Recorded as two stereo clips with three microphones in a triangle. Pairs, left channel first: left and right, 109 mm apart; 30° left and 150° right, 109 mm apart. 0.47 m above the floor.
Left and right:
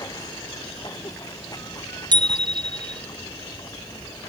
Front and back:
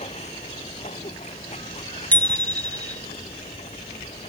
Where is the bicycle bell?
45° right.